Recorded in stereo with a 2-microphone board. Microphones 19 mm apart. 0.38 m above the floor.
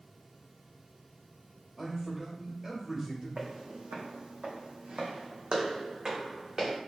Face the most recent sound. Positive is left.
turn(degrees=-30)  # may be behind; listen again after turning